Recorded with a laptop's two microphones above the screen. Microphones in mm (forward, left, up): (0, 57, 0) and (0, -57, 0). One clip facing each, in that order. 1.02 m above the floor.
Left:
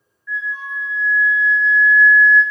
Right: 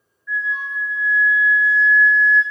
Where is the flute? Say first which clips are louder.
Right 2 dB; 15° right (ahead or behind), 2.0 m.